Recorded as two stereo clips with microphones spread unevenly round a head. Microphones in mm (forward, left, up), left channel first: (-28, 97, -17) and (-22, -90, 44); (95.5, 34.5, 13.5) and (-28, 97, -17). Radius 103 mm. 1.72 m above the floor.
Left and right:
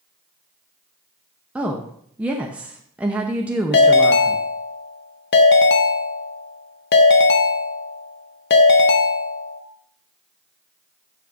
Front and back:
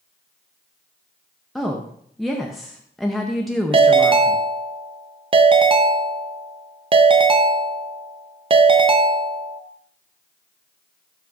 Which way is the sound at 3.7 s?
110° left.